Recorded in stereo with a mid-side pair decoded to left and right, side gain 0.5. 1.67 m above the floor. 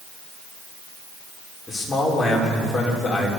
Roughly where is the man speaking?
Ahead.